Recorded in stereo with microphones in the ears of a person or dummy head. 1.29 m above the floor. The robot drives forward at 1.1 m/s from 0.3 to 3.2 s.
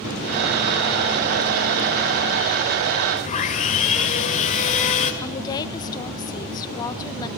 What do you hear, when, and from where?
3.2 s sawing: 40° left (ahead or behind), 1.8 m
5.2 s a woman speaking: 25° left (ahead or behind), 1.2 m